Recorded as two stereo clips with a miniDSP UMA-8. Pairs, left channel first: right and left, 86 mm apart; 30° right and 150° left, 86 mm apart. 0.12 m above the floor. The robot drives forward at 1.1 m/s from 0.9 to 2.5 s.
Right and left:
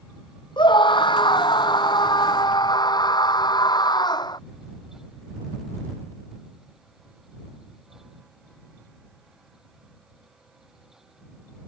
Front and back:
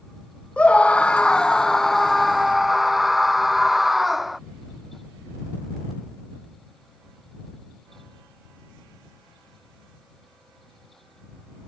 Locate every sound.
0.6 s a scream: 105° right; by 4.4 s 120° right